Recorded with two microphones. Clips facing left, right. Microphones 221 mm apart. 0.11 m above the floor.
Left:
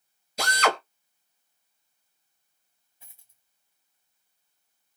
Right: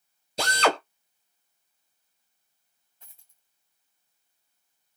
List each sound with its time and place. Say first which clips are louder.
0.4 s a drill: right 2 dB; 30° right (ahead or behind), 3 m
3.0 s a dropped coin: even; 5° left (ahead or behind), 2.5 m